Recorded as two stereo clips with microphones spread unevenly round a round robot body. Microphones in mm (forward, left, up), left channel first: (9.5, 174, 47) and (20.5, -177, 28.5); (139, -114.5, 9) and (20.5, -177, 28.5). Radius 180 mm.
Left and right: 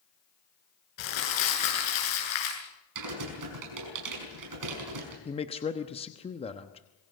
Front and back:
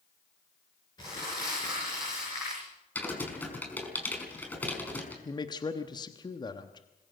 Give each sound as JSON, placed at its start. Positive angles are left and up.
{"t": 1.0, "sound": "crumpling", "azimuth_deg": 105, "distance_m": 8.0}
{"t": 3.0, "sound": "typing on a keyboard", "azimuth_deg": -50, "distance_m": 5.5}
{"t": 5.2, "sound": "a man speaking", "azimuth_deg": 20, "distance_m": 1.1}